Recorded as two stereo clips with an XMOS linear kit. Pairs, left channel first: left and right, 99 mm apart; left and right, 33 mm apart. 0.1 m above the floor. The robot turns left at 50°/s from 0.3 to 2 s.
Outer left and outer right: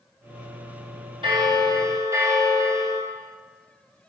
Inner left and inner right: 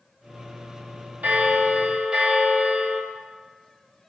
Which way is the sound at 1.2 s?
105° right.